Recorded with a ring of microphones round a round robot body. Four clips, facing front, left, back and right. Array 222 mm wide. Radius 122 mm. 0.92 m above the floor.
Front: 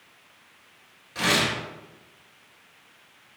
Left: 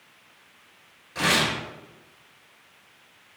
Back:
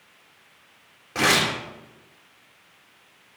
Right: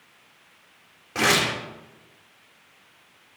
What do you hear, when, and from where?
1.1 s tearing paper: 130° right, 3.5 m